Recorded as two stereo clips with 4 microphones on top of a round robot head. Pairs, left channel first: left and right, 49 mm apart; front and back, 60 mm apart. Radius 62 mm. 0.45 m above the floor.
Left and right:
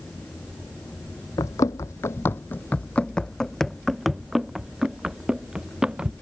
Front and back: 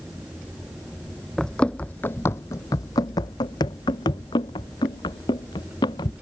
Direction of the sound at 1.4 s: 85° left.